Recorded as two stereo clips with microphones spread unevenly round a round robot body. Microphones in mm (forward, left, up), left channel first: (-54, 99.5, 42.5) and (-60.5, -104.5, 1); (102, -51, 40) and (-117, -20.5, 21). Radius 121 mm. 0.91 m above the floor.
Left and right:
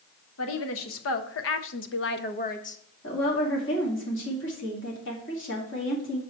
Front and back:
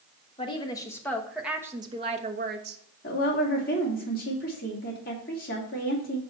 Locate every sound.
0.4 s a woman speaking: 60° left, 1.2 m; by 2.8 s 150° left, 0.9 m
3.0 s a woman speaking: 45° left, 2.5 m